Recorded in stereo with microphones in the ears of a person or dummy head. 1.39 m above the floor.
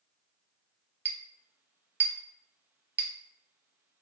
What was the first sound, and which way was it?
A clink, 5° right (ahead or behind).